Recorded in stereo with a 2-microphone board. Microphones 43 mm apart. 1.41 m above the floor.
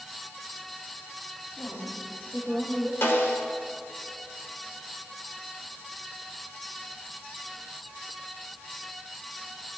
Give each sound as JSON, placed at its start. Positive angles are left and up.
{"t": 1.6, "sound": "a woman speaking", "side_deg": 50, "distance_m": 2.5}
{"t": 3.0, "sound": "a snare drum", "side_deg": 65, "distance_m": 1.4}